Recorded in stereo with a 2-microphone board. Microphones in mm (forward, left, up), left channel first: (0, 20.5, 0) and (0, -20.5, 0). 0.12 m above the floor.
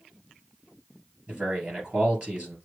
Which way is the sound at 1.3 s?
30° right (ahead or behind).